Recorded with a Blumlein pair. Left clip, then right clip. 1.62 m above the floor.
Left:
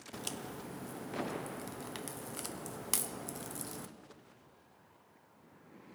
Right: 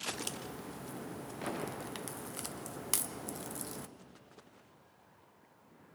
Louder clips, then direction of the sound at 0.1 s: Right 1 dB; straight ahead.